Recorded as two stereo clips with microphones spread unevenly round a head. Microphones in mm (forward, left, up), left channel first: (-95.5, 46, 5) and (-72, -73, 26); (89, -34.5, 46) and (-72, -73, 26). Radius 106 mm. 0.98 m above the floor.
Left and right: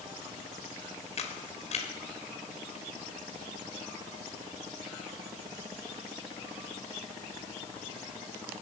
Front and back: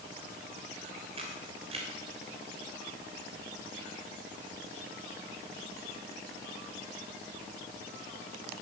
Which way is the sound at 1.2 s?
130° left.